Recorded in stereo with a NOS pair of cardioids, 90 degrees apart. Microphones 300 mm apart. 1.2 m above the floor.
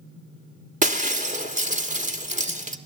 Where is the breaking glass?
25° right, 1.4 m.